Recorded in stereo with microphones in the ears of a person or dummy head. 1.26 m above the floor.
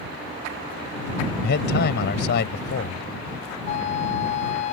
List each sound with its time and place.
1.4 s a man speaking: 60° left (ahead or behind)
3.6 s a flute: 40° left (ahead or behind)